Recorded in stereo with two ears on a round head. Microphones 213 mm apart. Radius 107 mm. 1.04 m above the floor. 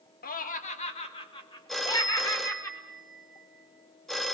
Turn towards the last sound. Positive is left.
turn(degrees=0)  # may be behind; listen again after turning